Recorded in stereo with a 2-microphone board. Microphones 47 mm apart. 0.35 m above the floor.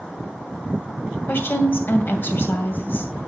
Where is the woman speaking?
50° left (ahead or behind), 2 m.